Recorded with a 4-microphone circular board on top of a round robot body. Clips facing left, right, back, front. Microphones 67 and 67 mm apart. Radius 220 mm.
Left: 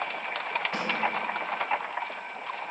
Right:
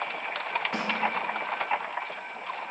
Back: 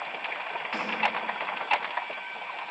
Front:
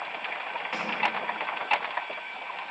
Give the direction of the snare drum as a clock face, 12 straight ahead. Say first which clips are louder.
Even, back 1 dB; 3 o'clock.